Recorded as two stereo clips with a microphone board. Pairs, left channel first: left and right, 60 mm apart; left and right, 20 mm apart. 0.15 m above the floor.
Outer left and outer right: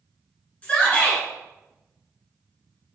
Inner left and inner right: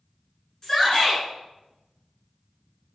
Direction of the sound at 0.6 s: 20° left (ahead or behind).